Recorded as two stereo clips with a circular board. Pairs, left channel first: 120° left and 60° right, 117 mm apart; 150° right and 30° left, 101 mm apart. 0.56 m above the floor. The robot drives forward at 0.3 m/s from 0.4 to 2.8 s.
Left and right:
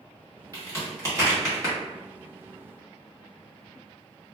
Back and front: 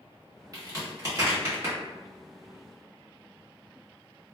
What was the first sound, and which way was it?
A crack, 15° right.